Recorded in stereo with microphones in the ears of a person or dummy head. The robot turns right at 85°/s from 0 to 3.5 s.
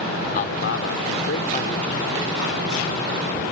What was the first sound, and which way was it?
A man speaking, 50° left.